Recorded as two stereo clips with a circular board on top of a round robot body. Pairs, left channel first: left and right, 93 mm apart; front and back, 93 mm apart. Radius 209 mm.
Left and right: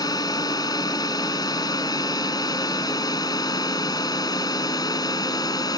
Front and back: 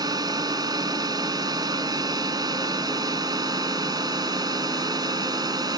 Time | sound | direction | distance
0.0 | a drone | 135° left | ?